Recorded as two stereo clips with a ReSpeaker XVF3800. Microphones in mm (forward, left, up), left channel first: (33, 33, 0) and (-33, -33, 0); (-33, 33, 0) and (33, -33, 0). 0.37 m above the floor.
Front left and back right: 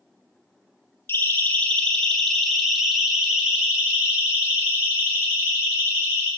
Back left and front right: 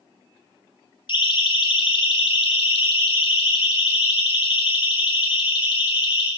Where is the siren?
110° left, 3 m; by 6.3 s 160° left, 7 m.